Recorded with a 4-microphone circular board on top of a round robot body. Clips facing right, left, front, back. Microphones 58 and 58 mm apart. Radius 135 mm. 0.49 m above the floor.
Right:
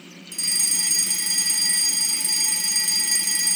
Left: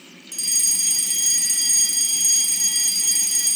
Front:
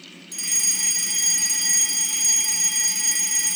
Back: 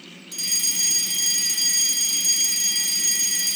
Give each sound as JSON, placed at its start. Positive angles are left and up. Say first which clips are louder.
{"t": 0.3, "sound": "a fire alarm", "louder": "right 1 dB, even", "azimuth_deg": -60, "distance_m": 3.5}